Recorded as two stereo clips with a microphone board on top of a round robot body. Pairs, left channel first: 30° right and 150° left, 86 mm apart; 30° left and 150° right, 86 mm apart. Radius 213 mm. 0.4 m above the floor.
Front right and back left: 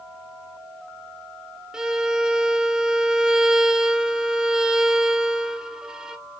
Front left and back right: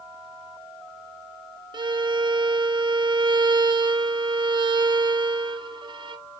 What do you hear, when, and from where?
1.7 s a violin: 130° right, 0.6 m